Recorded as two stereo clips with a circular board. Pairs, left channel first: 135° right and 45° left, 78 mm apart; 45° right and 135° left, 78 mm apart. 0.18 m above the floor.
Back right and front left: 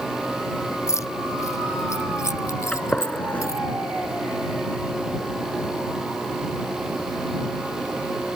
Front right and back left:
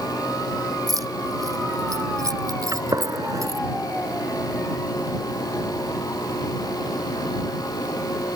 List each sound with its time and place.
0.9 s keys jangling: 175° left
2.7 s a gunshot: 155° left